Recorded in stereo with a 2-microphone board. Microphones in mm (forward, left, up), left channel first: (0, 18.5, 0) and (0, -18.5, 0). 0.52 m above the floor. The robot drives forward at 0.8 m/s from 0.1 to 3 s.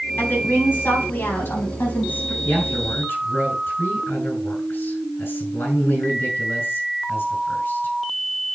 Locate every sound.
0.2 s a woman speaking: 75° left (ahead or behind), 4.5 m; by 2.4 s 70° left (ahead or behind), 4.5 m
2.5 s a man speaking: 80° left, 6.5 m